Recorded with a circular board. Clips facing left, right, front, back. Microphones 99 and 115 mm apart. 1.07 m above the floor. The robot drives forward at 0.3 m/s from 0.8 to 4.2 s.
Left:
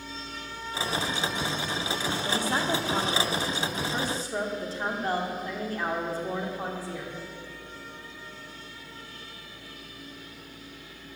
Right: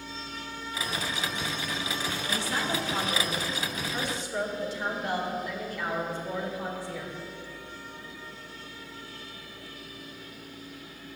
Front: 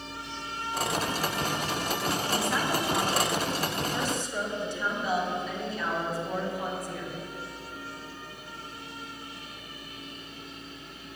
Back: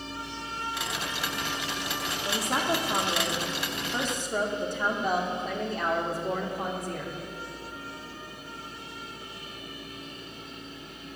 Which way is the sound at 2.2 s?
130° left.